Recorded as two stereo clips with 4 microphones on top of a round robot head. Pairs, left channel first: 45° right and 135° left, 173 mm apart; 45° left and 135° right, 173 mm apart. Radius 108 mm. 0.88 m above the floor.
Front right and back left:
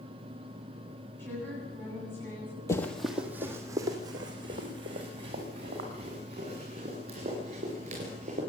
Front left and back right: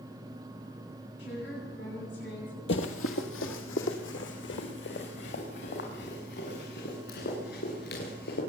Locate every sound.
1.2 s a woman speaking: 30° left, 9 m
2.7 s running footsteps: 25° left, 1.5 m; by 8.4 s 75° left, 9.5 m